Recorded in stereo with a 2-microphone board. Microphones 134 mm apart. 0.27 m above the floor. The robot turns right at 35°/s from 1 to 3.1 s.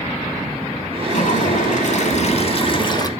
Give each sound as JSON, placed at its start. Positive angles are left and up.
{"t": 1.1, "sound": "a toilet flushing", "azimuth_deg": 75, "distance_m": 0.7}